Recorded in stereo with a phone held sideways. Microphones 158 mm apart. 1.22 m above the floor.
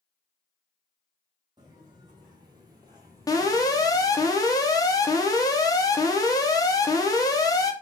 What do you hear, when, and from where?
1.6 s footsteps: 30° right (ahead or behind), 1.5 m; by 4.3 s 15° right (ahead or behind), 1.5 m
3.3 s an alarm: 25° left (ahead or behind), 0.8 m